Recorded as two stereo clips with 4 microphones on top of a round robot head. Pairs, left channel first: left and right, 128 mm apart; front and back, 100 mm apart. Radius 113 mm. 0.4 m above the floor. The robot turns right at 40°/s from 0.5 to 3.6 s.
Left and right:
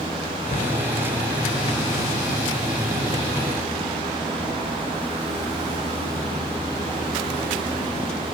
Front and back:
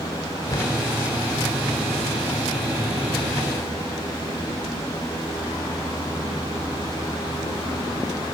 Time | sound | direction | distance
0.5 | a cupboard door | 55° left | ?